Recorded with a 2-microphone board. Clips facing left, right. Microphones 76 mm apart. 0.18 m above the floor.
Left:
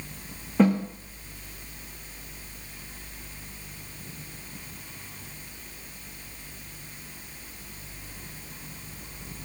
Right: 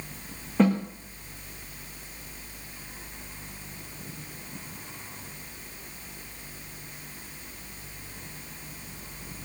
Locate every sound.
0.6 s a snare drum: 5° left (ahead or behind), 3.5 m